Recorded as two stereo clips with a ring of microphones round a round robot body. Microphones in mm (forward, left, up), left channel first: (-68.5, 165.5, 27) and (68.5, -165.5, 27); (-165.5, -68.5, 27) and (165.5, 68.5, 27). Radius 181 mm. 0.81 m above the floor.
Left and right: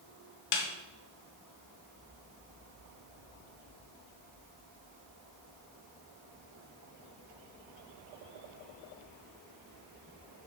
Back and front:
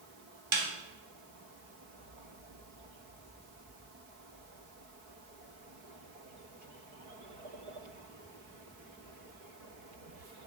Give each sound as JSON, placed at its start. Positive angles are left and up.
{"t": 0.5, "sound": "a snare drum", "azimuth_deg": 90, "distance_m": 0.7}